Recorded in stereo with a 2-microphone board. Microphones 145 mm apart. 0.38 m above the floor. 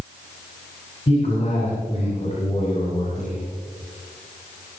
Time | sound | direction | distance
1.1 | a man speaking | 50° left (ahead or behind) | 5.5 m